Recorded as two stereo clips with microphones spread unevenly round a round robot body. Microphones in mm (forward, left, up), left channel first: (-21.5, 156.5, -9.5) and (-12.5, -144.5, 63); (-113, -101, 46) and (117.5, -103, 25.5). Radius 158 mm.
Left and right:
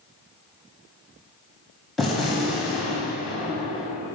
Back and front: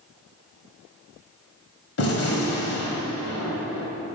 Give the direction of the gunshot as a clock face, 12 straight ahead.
6 o'clock.